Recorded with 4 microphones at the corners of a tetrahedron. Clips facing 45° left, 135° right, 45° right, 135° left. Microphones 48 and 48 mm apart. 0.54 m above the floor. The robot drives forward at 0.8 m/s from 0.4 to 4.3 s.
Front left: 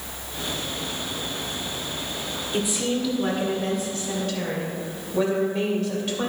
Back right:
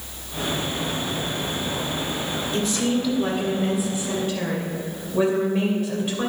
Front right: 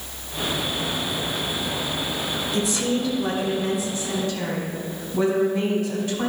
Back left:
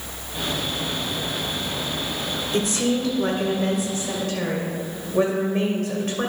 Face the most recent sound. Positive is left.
turn(degrees=155)